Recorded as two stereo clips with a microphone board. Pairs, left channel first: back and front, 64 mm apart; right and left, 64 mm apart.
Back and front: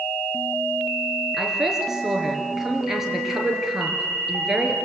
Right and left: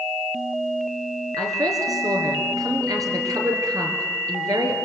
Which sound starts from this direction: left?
A woman speaking, at 1.4 s.